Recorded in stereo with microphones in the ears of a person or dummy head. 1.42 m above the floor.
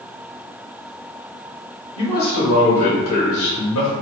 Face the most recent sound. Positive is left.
turn(degrees=75)  # may be behind; listen again after turning